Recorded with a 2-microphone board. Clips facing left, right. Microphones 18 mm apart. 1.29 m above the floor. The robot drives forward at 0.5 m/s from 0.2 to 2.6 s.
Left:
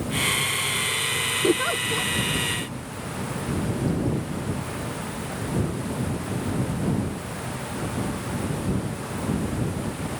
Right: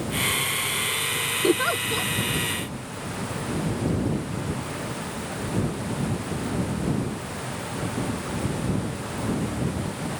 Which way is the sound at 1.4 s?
30° right (ahead or behind).